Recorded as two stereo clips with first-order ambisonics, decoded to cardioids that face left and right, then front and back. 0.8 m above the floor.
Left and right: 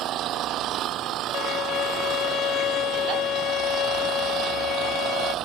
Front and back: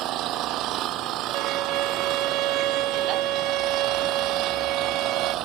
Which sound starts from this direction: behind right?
An engine running, at 0.0 s.